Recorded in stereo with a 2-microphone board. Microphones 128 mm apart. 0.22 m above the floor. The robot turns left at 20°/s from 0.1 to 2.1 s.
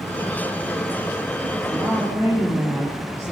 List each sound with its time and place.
1.7 s a woman speaking: 25° left (ahead or behind), 4.5 m; by 3.3 s 20° left (ahead or behind), 4.5 m